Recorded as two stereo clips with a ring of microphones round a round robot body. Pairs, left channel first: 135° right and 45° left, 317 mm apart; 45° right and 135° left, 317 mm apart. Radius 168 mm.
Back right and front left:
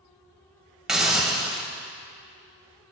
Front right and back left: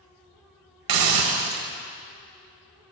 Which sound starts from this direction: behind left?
A hiss, at 0.9 s.